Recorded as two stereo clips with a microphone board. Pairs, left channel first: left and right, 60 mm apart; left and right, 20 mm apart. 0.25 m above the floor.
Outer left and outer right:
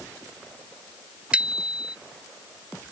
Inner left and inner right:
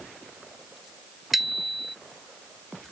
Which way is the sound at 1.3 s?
15° right (ahead or behind).